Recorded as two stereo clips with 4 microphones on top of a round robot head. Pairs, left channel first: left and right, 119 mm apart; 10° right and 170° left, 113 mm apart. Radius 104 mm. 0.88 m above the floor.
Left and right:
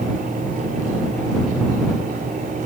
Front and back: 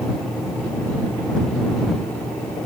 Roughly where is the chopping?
No chopping in this recording.